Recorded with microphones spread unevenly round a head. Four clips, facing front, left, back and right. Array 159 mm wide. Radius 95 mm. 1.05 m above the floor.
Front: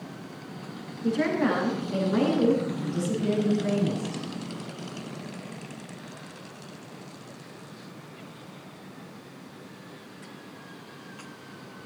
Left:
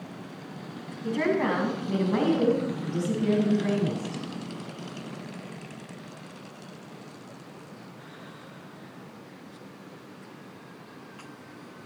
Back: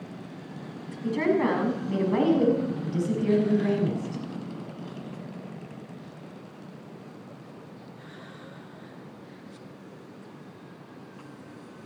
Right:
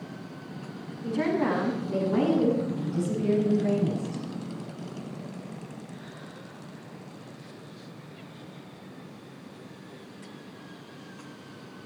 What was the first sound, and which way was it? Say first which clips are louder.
A woman speaking: left 1 dB, back 1 dB; 130° left.